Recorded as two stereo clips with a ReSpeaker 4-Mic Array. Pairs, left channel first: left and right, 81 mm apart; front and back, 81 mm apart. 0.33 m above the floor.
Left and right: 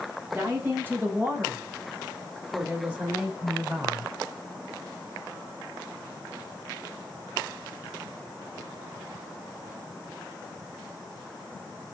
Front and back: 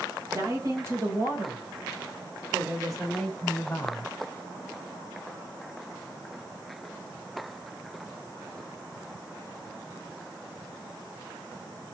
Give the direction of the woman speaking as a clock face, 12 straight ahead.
5 o'clock.